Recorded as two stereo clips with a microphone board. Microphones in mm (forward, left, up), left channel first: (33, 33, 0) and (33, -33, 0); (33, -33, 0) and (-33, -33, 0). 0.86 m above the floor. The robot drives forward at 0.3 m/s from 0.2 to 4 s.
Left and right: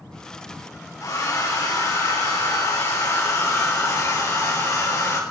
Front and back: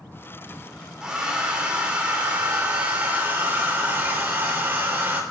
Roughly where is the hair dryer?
Left.